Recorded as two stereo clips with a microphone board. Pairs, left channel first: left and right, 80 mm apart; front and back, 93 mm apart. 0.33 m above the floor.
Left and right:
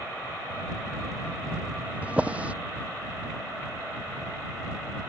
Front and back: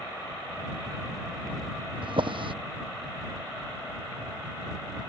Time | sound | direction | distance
2.0 | a drawer | 165° right | ?